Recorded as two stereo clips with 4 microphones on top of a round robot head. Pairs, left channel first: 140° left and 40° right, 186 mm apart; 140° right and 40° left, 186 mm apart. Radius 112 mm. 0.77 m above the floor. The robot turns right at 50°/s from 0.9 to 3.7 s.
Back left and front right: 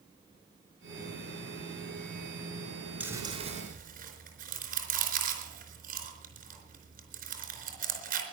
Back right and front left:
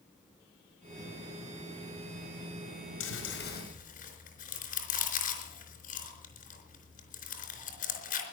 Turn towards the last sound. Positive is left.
turn(degrees=-90)